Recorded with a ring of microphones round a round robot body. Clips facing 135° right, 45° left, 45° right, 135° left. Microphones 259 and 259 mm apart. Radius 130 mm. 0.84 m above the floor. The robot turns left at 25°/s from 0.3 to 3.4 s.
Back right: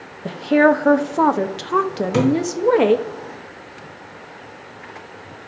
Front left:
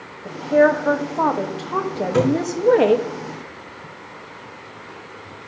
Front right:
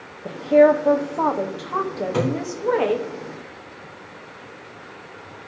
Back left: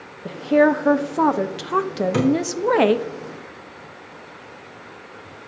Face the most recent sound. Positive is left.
turn(degrees=150)